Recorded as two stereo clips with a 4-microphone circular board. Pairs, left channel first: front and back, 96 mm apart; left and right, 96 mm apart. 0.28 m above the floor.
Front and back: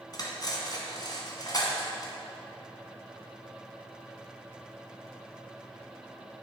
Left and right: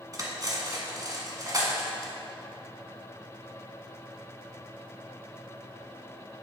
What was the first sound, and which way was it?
Cutlery clinking, 40° right.